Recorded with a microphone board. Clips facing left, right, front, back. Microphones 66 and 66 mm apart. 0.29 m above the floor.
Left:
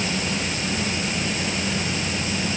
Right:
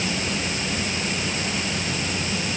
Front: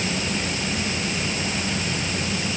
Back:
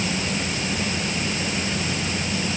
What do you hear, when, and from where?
Only background noise.